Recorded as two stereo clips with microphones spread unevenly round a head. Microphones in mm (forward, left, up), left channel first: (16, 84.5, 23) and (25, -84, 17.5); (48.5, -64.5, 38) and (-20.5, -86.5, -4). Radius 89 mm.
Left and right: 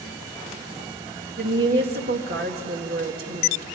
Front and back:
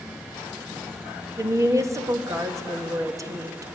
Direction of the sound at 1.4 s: 120° right.